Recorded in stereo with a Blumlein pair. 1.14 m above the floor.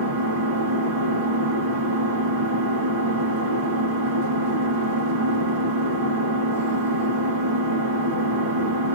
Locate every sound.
0.0 s an engine running: 60° right, 1.5 m